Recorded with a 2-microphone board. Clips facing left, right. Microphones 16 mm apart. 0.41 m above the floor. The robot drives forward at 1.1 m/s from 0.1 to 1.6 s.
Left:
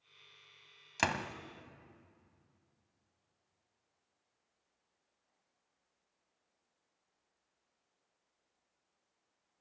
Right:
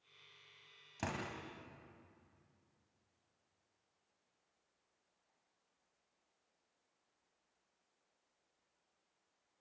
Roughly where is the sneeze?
I don't hear a sneeze.